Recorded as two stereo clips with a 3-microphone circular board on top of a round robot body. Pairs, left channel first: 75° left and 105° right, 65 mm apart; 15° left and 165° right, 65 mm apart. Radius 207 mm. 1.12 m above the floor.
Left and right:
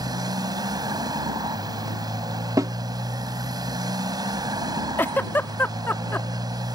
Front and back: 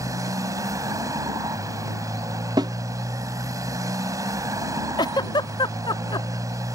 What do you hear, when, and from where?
0.0 s a motorcycle: 125° right
2.6 s a snare drum: 145° right
5.0 s a giggle: 15° left